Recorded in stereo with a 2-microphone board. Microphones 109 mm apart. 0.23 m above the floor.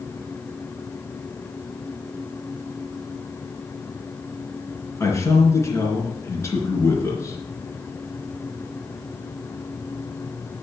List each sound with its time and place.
5.0 s a man speaking: 30° left (ahead or behind), 3 m